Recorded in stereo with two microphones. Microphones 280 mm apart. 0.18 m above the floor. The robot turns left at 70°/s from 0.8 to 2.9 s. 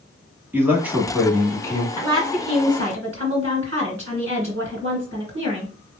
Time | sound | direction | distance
0.5 | a man speaking | 5° right (ahead or behind) | 1.0 m
2.0 | a woman speaking | 10° right | 2.5 m